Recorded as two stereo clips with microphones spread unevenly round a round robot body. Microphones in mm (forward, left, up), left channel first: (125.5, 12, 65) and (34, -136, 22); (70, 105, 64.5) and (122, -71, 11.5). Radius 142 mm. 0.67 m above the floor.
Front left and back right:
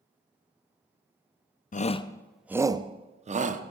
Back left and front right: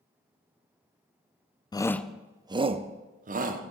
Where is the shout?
25° left, 0.5 m; by 3.6 s 95° right, 1.0 m.